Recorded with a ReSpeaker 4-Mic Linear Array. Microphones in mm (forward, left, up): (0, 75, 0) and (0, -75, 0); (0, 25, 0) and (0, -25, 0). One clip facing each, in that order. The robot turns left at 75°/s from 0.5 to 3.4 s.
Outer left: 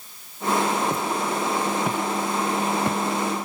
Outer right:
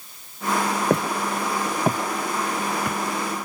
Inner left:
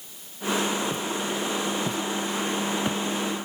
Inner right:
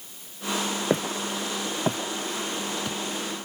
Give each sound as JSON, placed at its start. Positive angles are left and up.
{"t": 0.9, "sound": "footsteps", "side_deg": -65}